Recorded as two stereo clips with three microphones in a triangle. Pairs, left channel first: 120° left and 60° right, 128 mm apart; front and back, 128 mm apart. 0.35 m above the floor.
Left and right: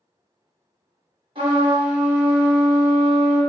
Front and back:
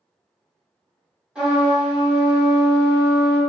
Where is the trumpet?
95° right, 1.2 m.